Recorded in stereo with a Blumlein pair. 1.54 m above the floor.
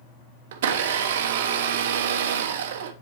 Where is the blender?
55° right, 0.8 m.